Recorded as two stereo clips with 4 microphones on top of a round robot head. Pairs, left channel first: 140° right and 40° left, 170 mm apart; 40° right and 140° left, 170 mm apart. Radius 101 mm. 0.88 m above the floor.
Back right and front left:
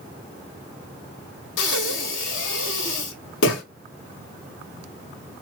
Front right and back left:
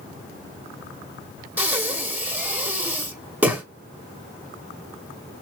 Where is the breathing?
140° right, 1.4 m.